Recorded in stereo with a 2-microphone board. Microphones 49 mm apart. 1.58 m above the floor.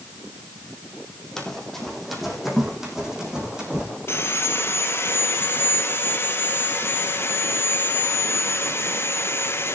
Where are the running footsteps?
10° left (ahead or behind), 4 m; by 3.9 s 20° right (ahead or behind), 6 m.